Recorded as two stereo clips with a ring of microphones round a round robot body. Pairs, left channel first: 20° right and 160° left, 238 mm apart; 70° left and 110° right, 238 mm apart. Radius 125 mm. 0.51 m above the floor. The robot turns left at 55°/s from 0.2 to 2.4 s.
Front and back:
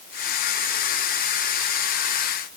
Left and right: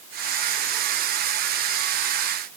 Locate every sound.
Only background noise.